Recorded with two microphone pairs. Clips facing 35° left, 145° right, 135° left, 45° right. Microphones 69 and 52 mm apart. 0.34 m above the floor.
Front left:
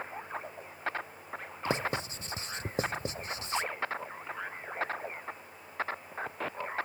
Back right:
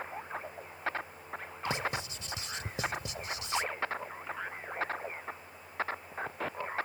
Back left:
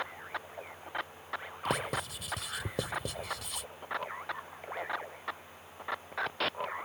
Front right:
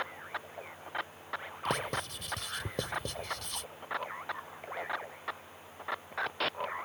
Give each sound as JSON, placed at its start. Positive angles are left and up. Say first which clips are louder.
{"t": 1.6, "sound": "writing", "louder": "front left 2 dB, even", "azimuth_deg": 50}